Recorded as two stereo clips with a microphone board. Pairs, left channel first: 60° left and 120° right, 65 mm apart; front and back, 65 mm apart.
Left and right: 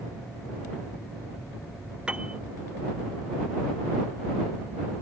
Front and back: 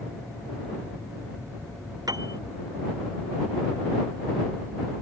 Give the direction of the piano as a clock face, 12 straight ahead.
6 o'clock.